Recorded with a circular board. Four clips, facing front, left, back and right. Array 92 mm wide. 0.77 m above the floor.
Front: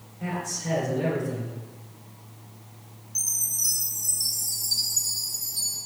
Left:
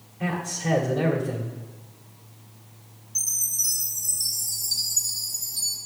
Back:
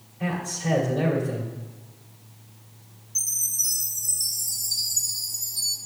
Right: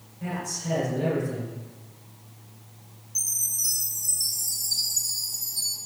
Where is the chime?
60° left, 2 m.